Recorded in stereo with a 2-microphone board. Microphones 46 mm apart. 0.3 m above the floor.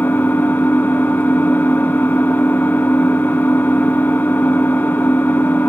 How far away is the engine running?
About 1.0 m.